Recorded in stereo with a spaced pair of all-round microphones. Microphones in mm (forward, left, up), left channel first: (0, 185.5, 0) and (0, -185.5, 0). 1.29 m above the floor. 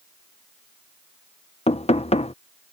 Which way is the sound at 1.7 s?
15° left (ahead or behind).